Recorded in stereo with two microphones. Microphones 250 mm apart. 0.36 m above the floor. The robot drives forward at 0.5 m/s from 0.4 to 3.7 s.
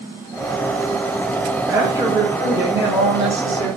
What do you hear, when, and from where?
1.7 s a woman speaking: 15° right (ahead or behind), 1.4 m; by 3.7 s 10° right (ahead or behind), 1.5 m